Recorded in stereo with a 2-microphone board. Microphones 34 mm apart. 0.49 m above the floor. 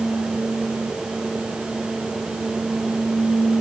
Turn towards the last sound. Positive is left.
No sound to turn to.